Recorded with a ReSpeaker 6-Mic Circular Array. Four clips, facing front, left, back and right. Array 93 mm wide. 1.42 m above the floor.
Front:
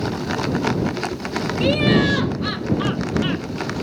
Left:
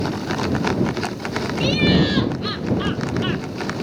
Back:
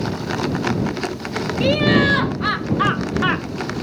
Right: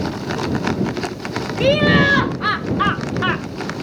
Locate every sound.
1.6 s laughter: 100° right; by 3.5 s 140° right